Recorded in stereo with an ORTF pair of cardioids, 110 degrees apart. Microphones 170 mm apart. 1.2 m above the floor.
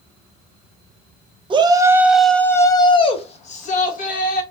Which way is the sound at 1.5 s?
30° right.